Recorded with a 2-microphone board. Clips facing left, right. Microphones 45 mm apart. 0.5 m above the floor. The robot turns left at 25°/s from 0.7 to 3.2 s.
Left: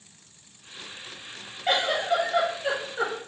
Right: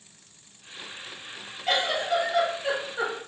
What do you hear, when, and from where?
1.7 s a giggle: 35° left, 1.2 m; by 3.1 s straight ahead, 1.2 m